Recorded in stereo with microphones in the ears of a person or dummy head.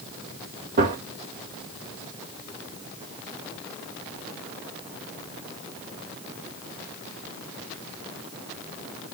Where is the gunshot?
50° right (ahead or behind), 2 m.